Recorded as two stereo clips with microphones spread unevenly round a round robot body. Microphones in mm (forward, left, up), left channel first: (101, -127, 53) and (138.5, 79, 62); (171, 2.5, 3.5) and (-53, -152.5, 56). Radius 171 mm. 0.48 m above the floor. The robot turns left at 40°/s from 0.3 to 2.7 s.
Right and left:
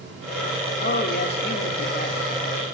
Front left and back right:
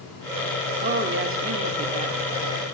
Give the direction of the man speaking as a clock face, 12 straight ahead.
3 o'clock.